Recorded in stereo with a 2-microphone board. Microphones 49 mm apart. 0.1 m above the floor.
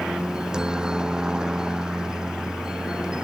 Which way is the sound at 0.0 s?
15° right (ahead or behind).